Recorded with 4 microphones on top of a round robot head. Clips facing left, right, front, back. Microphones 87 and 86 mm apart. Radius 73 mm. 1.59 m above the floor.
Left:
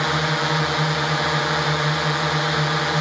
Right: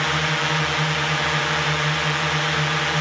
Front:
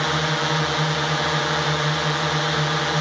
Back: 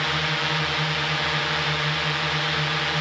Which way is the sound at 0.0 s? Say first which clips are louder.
Left 1 dB, front 4 dB; 35° left.